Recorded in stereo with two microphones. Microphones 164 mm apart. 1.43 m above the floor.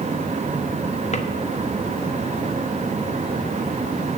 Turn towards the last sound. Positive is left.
turn(degrees=45)  # may be behind; listen again after turning